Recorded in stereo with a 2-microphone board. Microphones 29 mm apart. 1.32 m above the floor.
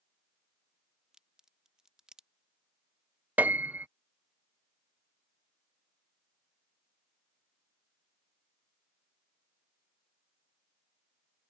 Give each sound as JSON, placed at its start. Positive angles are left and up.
{"t": 1.1, "sound": "a crack", "side_deg": -25}
{"t": 3.4, "sound": "a piano", "side_deg": -75}